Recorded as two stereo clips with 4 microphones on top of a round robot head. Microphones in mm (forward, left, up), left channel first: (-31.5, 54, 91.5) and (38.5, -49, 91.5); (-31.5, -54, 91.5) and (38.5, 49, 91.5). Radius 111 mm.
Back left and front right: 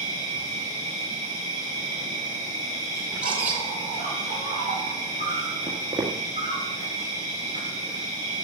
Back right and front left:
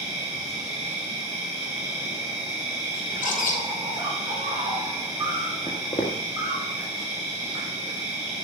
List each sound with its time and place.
0.0 s an insect: 120° left, 6.5 m
3.1 s a bird: 135° right, 1.0 m
5.7 s footsteps: 110° right, 1.7 m